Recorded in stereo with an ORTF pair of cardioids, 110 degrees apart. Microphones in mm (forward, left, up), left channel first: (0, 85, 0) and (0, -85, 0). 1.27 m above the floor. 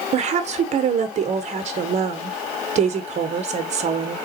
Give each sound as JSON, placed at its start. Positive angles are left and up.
{"t": 0.1, "sound": "a woman speaking", "azimuth_deg": -40, "distance_m": 0.8}